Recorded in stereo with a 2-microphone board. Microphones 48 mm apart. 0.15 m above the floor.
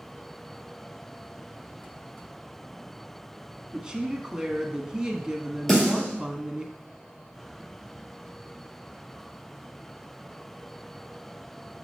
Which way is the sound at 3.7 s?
20° right (ahead or behind).